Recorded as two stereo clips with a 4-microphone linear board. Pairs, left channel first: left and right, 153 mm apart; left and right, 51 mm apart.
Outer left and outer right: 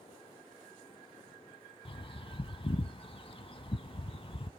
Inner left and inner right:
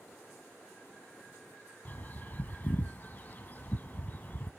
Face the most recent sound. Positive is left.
turn(degrees=35)  # may be behind; listen again after turning